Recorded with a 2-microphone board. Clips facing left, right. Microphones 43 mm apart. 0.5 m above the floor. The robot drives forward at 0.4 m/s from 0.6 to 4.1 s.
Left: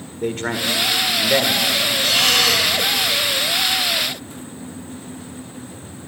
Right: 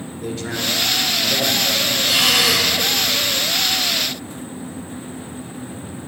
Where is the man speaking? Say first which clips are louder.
Left 3 dB; 45° left (ahead or behind), 1.6 m; by 1.9 s 40° left (ahead or behind), 1.8 m.